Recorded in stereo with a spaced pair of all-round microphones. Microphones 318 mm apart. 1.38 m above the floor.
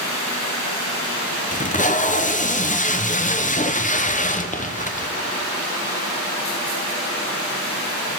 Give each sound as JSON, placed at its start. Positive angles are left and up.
{"t": 1.5, "sound": "tape being pulled", "side_deg": 25, "distance_m": 0.7}